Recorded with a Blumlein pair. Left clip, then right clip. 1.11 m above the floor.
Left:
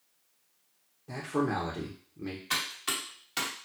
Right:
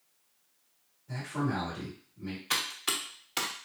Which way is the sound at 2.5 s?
10° right.